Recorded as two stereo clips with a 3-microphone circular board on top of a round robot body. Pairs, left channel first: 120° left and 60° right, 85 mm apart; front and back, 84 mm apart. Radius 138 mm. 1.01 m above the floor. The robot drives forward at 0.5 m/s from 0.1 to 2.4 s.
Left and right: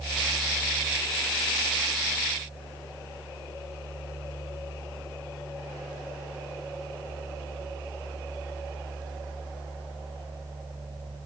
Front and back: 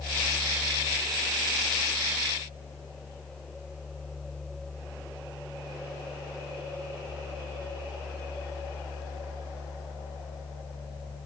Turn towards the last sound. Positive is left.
No sound to turn to.